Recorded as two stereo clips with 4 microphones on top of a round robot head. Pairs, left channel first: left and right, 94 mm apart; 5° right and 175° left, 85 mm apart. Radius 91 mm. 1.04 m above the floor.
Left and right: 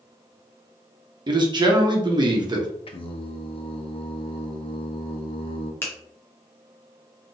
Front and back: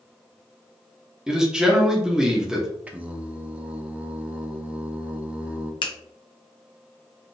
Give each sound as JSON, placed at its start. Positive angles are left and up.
{"t": 1.3, "sound": "a man speaking", "azimuth_deg": -105, "distance_m": 1.1}
{"t": 2.9, "sound": "singing", "azimuth_deg": 100, "distance_m": 0.7}
{"t": 5.8, "sound": "a finger snap", "azimuth_deg": 20, "distance_m": 0.8}